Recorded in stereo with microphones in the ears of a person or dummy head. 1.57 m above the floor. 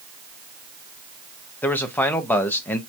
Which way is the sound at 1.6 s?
15° left (ahead or behind).